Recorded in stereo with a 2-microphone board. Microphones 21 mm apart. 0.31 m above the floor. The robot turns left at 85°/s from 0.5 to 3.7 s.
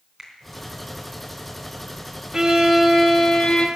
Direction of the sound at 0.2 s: 15° right (ahead or behind).